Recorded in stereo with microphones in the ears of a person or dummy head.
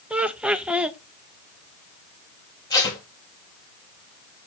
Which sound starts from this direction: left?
Tape being pulled, at 2.7 s.